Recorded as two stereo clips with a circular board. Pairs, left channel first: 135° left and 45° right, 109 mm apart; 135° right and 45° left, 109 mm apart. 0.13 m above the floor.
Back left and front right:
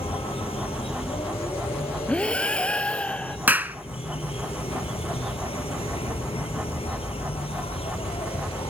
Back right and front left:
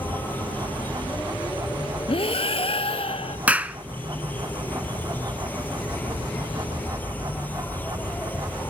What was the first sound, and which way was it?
An insect, 155° left.